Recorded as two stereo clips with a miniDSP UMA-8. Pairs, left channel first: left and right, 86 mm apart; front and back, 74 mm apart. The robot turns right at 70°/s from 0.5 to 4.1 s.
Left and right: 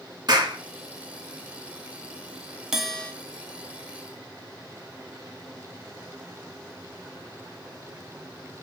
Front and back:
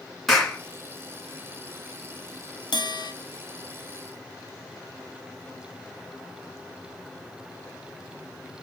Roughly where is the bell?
Ahead.